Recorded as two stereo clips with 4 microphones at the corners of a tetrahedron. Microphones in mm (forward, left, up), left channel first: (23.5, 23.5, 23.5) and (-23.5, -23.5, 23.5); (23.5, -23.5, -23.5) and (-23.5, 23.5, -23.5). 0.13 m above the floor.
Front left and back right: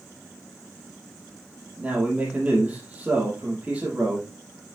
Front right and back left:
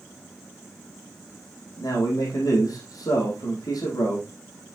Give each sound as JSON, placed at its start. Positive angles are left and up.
{"t": 1.8, "sound": "a man speaking", "azimuth_deg": -70, "distance_m": 4.5}